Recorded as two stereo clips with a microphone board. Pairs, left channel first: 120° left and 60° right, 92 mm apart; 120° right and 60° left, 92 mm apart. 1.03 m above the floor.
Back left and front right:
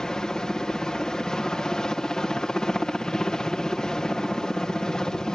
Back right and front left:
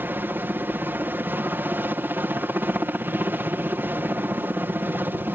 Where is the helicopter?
50° left.